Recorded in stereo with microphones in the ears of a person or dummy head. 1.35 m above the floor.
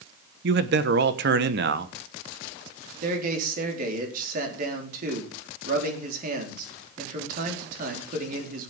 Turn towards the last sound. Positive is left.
turn(degrees=-50)  # may be behind; listen again after turning